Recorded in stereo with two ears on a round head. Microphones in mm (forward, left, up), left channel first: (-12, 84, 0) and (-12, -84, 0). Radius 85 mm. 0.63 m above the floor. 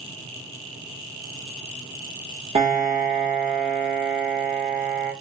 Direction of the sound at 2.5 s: 30° right (ahead or behind).